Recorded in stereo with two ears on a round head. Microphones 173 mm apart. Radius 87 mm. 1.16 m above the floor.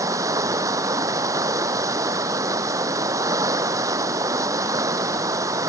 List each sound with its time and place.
0.0 s running water: 20° right (ahead or behind)